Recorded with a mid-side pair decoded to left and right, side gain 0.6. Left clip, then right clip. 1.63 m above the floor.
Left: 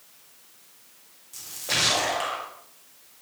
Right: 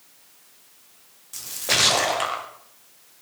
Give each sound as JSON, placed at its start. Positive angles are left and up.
{"t": 1.3, "sound": "a splash", "azimuth_deg": -35, "distance_m": 1.3}